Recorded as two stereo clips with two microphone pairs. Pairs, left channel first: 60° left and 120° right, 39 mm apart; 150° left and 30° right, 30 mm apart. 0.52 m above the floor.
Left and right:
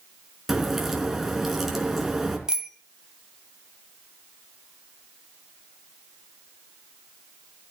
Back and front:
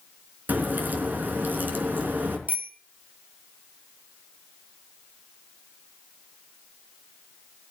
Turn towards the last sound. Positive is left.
turn(degrees=-45)